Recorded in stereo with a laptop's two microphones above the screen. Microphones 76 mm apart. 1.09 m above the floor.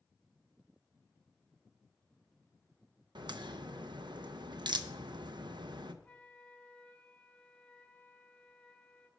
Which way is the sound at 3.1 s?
70° right (ahead or behind).